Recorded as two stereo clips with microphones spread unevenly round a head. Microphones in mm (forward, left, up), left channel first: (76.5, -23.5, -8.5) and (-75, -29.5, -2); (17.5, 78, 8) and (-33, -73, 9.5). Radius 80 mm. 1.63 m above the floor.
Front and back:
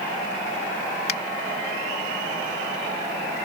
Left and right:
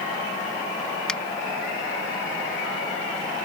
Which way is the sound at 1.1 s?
15° right.